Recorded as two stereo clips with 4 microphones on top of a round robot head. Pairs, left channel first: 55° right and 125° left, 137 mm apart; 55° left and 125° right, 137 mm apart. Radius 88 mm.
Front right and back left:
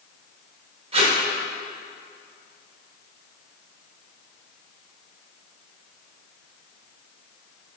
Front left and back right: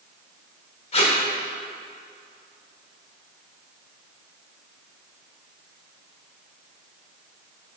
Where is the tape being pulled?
85° left, 1.6 m.